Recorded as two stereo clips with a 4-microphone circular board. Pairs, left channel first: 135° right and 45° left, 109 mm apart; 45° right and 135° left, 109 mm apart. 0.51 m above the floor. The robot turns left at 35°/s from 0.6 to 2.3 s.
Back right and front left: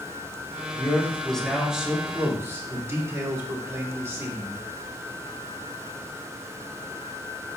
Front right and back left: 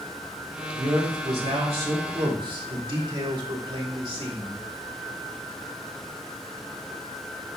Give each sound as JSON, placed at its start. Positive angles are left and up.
{"t": 0.8, "sound": "a man speaking", "azimuth_deg": 160, "distance_m": 2.5}